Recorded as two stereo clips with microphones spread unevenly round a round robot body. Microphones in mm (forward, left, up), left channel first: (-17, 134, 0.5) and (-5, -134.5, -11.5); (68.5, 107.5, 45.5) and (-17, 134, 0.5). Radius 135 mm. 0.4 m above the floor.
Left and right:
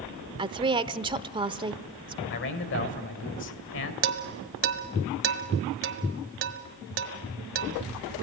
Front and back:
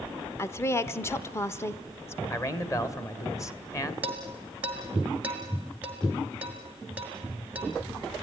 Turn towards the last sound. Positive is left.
turn(degrees=-130)